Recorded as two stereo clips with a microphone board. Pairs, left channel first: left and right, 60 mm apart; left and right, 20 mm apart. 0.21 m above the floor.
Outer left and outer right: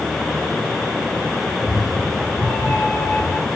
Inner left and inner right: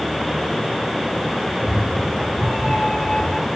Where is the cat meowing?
Centre (ahead or behind), 3.5 m; by 3.5 s 45° left (ahead or behind), 1.6 m.